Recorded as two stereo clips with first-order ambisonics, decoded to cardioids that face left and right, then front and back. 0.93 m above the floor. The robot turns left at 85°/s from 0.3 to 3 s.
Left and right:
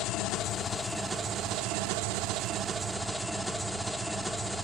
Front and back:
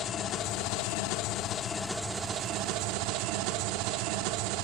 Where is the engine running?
50° left, 0.9 m; by 4.7 s straight behind, 0.9 m.